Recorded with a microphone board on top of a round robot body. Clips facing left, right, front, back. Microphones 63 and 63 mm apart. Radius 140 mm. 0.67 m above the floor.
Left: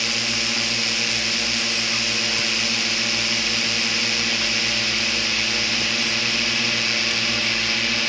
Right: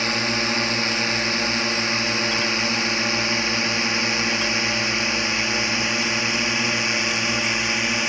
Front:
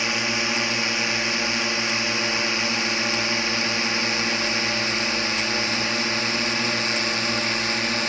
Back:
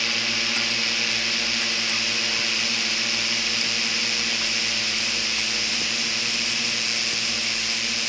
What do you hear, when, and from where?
0.0 s a drone: 55° right; by 8.1 s 25° right